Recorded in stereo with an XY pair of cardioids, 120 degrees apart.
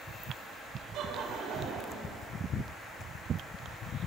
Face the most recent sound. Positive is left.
turn(degrees=-70)